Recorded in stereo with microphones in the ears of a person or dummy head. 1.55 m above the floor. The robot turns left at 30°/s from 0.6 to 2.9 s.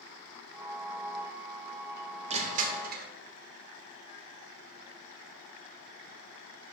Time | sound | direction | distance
2.3 | crushing | 35° right (ahead or behind) | 0.8 m